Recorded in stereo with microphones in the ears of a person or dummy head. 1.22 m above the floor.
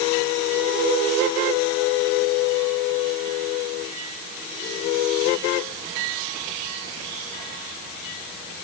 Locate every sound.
Only background noise.